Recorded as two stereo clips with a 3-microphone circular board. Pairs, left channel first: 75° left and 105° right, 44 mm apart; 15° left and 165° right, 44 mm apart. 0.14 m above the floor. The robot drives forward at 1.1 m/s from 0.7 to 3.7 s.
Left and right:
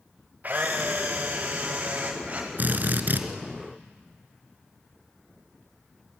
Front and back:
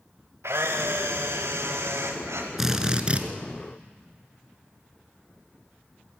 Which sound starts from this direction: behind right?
A camera shutter, at 0.4 s.